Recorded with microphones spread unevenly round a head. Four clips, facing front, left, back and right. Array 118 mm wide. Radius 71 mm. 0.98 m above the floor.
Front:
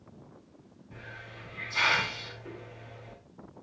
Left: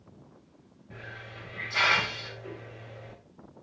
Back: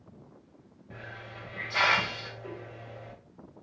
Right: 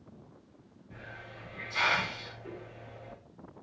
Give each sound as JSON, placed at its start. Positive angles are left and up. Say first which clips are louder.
{"t": 0.9, "sound": "a hiss", "louder": "left 3 dB, back 3 dB", "azimuth_deg": 165, "distance_m": 4.0}